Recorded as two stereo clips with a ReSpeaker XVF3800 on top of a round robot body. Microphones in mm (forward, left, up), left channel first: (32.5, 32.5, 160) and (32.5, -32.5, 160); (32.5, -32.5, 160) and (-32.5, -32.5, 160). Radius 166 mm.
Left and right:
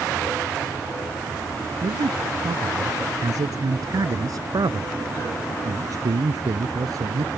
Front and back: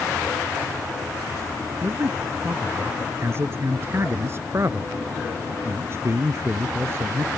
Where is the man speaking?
125° right.